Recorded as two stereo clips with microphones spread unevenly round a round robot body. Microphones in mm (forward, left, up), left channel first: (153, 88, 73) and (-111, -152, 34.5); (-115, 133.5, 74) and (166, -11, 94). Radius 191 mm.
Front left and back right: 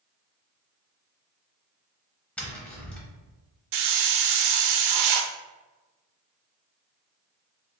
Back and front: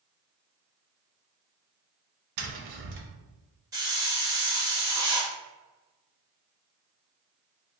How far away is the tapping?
About 0.7 m.